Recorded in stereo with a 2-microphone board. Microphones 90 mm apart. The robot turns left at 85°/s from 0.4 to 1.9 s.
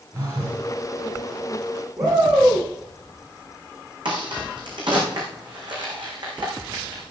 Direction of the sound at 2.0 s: 45° right (ahead or behind).